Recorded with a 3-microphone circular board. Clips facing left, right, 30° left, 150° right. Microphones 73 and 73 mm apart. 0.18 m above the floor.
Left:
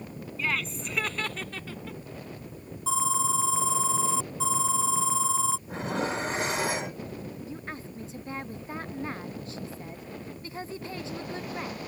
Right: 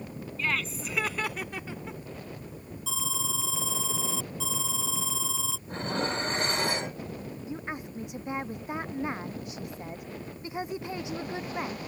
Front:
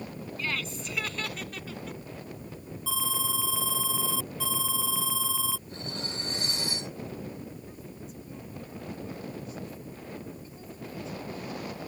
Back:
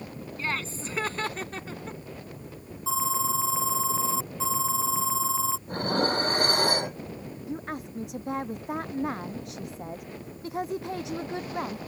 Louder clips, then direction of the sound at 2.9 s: Left 9 dB, back 6 dB; 145° left.